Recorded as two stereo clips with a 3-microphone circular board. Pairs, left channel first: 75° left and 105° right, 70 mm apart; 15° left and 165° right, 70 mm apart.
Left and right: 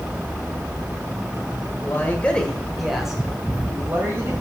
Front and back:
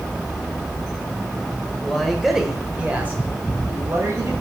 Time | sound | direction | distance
1.8 | a man speaking | 90° left | 1.5 m